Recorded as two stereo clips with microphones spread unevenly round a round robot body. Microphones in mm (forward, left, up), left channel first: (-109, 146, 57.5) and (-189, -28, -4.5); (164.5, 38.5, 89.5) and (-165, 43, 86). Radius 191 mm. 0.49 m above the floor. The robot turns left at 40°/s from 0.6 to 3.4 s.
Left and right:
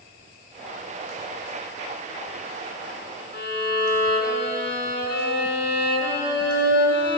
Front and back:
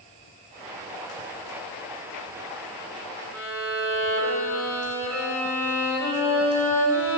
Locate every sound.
3.3 s a violin: 100° left, 6 m; by 7.2 s 95° left, 6 m